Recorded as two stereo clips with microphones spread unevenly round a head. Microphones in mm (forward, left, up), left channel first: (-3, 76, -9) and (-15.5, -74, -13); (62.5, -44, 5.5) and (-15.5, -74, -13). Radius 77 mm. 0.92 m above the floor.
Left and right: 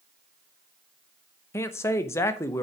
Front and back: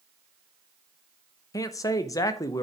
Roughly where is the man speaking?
Ahead left.